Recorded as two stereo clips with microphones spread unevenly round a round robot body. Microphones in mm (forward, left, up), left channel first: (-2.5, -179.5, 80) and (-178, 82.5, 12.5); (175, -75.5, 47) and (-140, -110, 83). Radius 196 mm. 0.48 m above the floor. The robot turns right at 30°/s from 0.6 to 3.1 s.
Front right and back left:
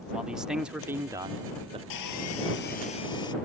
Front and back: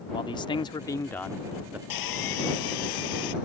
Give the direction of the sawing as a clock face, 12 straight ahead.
12 o'clock.